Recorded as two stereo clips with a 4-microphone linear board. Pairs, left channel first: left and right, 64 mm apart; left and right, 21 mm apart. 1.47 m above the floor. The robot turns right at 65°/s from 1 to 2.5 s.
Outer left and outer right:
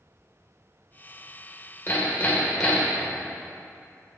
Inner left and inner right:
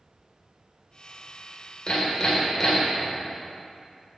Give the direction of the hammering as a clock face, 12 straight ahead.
8 o'clock.